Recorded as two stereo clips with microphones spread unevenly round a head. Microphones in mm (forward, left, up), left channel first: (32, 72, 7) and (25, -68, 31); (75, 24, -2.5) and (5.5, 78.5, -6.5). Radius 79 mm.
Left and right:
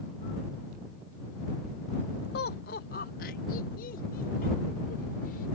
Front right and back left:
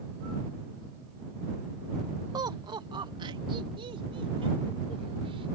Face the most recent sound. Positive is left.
turn(degrees=125)